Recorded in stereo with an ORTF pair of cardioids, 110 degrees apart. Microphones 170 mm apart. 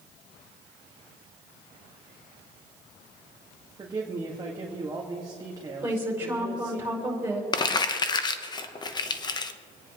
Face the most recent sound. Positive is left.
turn(degrees=25)